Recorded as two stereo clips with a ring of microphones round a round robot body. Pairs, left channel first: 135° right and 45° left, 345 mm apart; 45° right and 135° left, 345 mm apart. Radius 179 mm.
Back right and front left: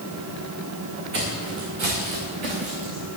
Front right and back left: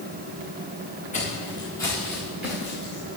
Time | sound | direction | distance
1.1 | footsteps | 25° left | 4 m